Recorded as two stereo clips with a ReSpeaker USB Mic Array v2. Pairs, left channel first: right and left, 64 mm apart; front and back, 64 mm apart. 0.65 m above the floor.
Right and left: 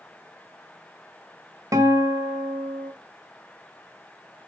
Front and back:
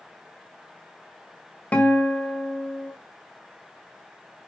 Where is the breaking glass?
No breaking glass in this recording.